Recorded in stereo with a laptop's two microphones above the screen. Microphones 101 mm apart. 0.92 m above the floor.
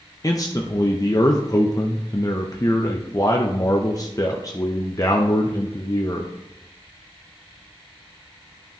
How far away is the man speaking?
About 0.6 m.